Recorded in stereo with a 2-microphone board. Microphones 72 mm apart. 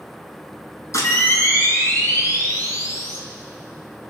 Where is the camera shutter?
45° left (ahead or behind), 3 m.